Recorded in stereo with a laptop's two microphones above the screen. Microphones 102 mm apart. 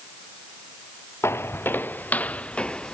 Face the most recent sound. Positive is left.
turn(degrees=10)  # may be behind; listen again after turning